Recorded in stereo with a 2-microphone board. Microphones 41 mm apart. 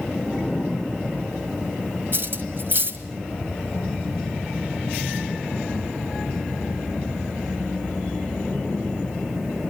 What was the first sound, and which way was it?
Cutlery clinking, 60° right (ahead or behind).